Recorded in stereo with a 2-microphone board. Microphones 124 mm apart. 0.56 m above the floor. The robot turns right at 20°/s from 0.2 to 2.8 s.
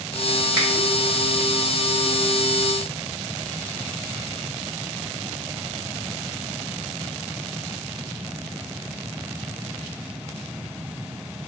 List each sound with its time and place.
0.6 s a finger snap: 20° right (ahead or behind), 1.9 m